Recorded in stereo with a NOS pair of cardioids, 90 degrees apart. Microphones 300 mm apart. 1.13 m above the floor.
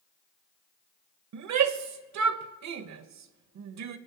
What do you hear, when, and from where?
1.3 s a shout: 65° right, 1.1 m